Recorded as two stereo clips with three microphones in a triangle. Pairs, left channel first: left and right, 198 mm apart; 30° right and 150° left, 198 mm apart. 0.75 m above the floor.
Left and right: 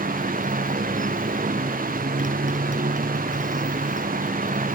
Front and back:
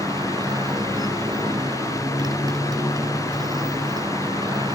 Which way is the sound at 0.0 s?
140° right.